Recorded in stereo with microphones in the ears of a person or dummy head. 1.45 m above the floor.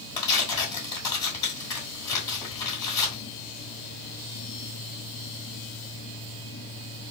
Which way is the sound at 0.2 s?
20° left (ahead or behind).